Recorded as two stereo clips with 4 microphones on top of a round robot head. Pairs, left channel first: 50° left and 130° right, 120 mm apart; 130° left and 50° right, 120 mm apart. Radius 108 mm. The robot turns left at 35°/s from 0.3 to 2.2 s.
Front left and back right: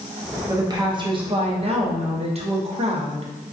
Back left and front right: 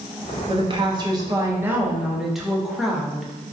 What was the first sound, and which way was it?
A woman speaking, 75° right.